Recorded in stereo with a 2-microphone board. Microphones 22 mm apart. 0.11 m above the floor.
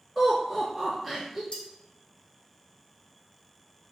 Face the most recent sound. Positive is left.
turn(degrees=45)  # may be behind; listen again after turning